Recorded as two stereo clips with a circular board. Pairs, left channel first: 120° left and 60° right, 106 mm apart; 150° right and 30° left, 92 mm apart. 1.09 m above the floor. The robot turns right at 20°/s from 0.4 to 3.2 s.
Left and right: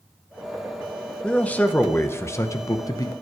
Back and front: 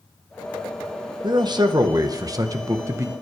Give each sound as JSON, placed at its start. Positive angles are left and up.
{"t": 1.2, "sound": "a man speaking", "azimuth_deg": 45, "distance_m": 0.9}